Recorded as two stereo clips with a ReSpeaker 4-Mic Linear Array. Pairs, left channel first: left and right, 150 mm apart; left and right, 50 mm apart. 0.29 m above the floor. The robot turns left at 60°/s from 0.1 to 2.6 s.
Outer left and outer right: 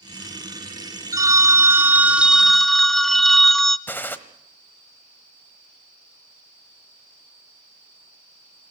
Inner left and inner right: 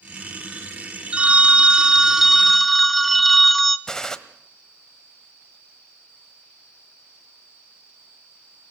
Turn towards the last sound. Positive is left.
turn(degrees=15)  # may be behind; listen again after turning